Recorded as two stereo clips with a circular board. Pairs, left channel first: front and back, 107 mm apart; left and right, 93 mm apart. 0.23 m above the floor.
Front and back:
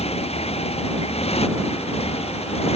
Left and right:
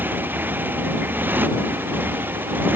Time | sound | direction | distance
0.0 | a motorcycle | 20° right | ?